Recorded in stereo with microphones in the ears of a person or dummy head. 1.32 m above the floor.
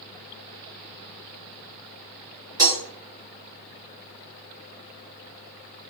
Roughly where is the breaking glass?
Centre.